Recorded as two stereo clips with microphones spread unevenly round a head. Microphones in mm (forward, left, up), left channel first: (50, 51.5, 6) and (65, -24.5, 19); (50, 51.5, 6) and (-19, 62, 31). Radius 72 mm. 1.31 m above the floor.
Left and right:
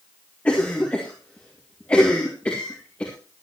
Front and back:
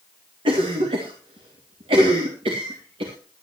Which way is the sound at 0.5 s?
Straight behind.